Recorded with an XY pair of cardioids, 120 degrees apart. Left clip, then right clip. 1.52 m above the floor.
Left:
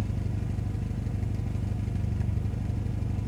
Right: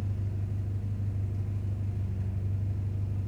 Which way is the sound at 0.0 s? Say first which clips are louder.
Left 5 dB; 65° left.